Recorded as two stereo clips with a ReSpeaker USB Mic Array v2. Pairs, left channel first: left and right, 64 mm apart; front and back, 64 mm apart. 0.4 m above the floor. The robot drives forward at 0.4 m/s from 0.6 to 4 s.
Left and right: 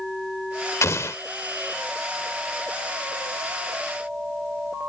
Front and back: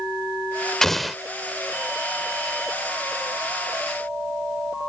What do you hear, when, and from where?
0.8 s an explosion: 80° left; by 1.2 s 95° left